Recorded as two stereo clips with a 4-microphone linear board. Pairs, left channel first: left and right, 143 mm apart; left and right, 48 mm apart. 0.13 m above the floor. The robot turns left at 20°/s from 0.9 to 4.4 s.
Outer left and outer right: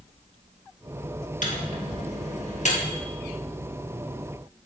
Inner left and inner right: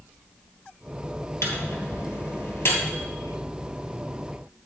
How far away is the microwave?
About 2 m.